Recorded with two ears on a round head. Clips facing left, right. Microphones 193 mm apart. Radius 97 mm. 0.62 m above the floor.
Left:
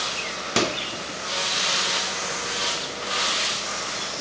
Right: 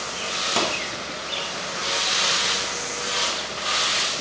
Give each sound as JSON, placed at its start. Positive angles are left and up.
{"t": 0.6, "sound": "a microwave", "side_deg": 20, "distance_m": 0.6}